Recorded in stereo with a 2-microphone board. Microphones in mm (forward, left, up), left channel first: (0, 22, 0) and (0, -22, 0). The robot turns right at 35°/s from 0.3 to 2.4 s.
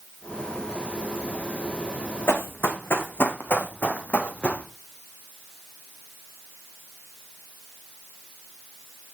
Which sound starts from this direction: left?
Running footsteps, at 2.3 s.